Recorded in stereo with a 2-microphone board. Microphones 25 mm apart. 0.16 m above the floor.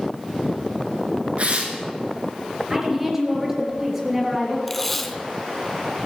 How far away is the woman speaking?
About 3.5 m.